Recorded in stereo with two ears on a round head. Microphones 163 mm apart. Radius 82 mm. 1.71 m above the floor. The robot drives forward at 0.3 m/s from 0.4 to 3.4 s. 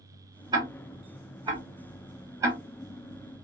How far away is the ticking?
About 1.0 m.